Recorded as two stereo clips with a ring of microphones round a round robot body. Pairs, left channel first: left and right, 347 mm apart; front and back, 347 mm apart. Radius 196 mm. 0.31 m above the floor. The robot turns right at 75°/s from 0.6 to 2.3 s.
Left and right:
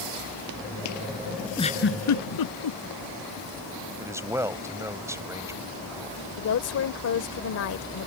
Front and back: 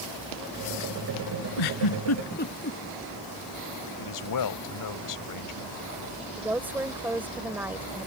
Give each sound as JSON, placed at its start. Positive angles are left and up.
{"t": 1.6, "sound": "a giggle", "azimuth_deg": 10}
{"t": 4.0, "sound": "a man speaking", "azimuth_deg": -10}
{"t": 6.4, "sound": "a woman speaking", "azimuth_deg": 95}